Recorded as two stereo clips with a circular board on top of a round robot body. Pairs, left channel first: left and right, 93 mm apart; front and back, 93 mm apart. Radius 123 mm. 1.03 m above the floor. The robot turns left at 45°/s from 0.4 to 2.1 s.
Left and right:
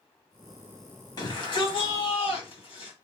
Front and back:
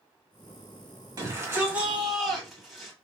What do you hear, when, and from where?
1.2 s a shout: 135° left, 2.5 m; by 2.9 s 90° left, 2.5 m